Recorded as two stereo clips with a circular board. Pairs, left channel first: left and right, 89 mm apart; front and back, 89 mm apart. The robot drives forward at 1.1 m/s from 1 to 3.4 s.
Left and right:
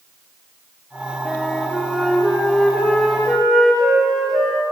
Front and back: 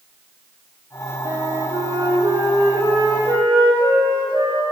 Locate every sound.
1.2 s a flute: straight behind, 0.7 m